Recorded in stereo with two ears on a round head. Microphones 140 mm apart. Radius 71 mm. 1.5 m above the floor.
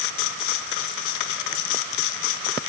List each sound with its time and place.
Only background noise.